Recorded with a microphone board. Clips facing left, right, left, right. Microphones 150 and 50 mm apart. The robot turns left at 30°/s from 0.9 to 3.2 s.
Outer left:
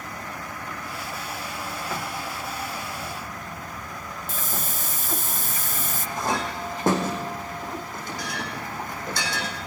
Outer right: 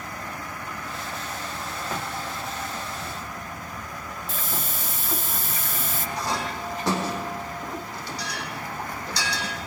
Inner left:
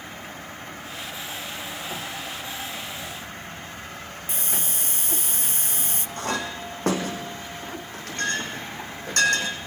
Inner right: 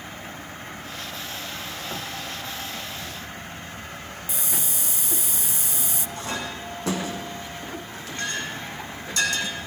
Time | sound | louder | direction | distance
4.3 | a hiss | outer left 1 dB, inner left 1 dB | 45° left (ahead or behind) | 0.6 m
6.2 | a clink | outer left 3 dB, inner left 4 dB | 50° left (ahead or behind) | 5 m